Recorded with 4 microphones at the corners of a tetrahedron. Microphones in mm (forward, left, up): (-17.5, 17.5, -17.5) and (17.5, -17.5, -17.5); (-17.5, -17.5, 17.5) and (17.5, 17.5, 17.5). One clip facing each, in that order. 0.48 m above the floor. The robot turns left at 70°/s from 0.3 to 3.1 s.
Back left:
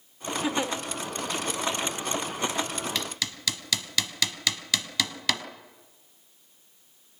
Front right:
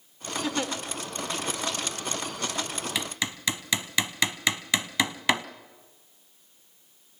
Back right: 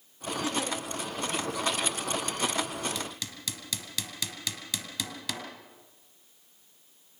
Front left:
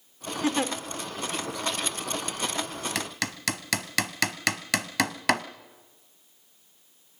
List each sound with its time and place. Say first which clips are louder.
0.4 s a giggle: back left 2 dB, front left 6 dB; 70° left, 1.6 m; by 0.7 s 45° left, 1.6 m
3.0 s hammering: front right 1 dB, front left 6 dB; 35° left, 1.1 m; by 5.5 s 25° left, 1.1 m